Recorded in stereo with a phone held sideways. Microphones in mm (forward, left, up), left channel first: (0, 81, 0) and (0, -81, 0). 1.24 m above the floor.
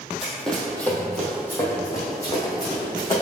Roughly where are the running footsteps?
Centre.